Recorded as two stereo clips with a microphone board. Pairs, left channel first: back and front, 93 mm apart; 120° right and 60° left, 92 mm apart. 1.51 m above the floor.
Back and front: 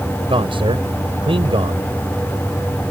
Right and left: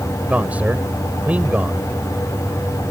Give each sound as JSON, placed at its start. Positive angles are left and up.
{"t": 0.3, "sound": "a man speaking", "azimuth_deg": -15}